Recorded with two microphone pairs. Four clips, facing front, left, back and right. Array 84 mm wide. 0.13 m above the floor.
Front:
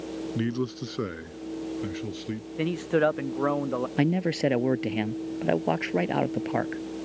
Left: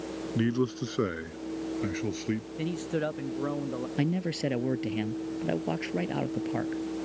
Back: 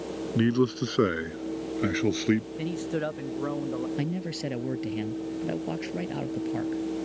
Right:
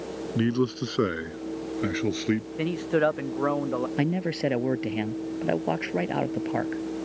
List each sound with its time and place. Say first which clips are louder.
0.3 s a man speaking: right 3 dB, back 7 dB; 155° right; by 2.5 s 140° right
2.6 s a man speaking: right 9 dB, front 6 dB; 55° right
4.0 s a man speaking: even, front 7 dB; 40° right